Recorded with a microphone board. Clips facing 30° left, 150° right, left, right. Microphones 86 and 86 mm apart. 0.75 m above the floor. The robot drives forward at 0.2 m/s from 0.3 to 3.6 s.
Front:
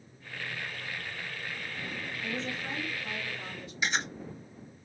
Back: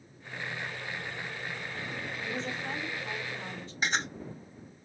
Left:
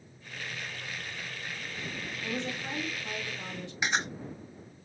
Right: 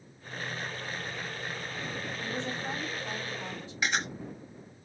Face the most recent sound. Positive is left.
turn(degrees=160)